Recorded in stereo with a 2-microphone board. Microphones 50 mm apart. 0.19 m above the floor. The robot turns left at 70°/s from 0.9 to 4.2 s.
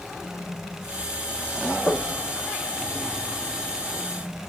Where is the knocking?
30° left (ahead or behind), 3 m; by 2.2 s 50° left (ahead or behind), 3 m.